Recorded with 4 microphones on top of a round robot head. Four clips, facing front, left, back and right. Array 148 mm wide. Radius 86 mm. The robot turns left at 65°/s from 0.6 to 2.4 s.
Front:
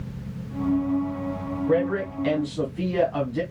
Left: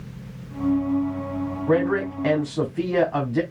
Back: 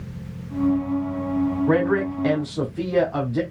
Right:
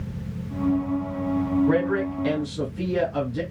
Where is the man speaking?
170° left, 1.8 m; by 3.4 s 125° left, 1.8 m.